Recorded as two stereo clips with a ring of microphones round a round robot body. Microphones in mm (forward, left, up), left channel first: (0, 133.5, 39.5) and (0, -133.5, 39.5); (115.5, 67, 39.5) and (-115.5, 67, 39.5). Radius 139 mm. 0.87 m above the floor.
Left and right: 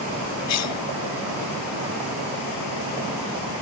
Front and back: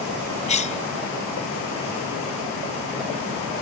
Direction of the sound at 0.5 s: 60° left.